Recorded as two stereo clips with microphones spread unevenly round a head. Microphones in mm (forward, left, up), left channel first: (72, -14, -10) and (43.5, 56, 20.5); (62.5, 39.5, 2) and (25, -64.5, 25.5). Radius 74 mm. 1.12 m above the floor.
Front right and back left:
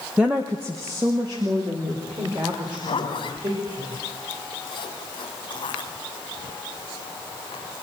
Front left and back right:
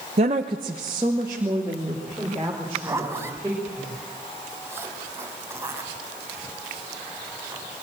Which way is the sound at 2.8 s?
45° right.